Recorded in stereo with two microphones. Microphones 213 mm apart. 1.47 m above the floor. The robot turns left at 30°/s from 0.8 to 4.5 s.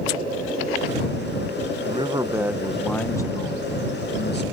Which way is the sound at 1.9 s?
155° right.